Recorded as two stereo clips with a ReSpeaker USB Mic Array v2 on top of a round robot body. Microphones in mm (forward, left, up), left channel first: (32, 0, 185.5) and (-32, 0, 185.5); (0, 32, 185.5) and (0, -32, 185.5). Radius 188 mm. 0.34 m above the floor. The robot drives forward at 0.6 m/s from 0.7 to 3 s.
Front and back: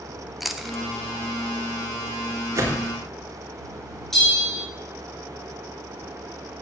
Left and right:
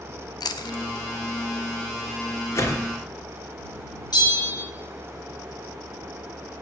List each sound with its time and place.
0.4 s chewing: 95° left, 0.7 m; by 0.8 s 100° left, 0.7 m
2.5 s a whoosh: 135° left, 2.5 m; by 2.9 s 140° left, 2.5 m
4.1 s a bell: 85° left, 3.5 m